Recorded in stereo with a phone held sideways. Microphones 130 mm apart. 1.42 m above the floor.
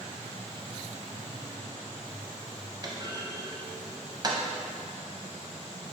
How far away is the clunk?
About 0.6 m.